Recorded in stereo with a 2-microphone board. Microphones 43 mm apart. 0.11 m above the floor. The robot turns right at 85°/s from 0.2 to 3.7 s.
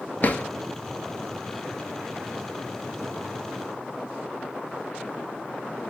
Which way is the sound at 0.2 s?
45° left (ahead or behind).